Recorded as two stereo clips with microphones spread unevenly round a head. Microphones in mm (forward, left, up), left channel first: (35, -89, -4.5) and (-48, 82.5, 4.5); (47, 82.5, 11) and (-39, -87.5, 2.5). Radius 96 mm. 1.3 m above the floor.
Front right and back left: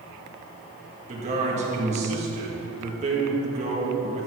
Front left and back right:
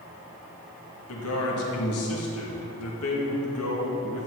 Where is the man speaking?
60° left, 2 m.